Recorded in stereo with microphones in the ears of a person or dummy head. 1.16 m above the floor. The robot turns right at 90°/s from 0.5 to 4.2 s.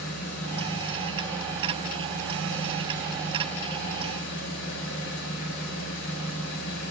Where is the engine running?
100° left, 2.5 m; by 6.9 s 70° left, 2.5 m.